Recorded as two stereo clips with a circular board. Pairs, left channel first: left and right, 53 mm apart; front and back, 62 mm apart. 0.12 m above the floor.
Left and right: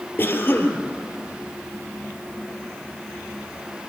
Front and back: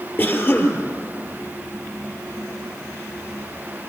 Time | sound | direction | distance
0.2 | a cough | 45° left | 3 m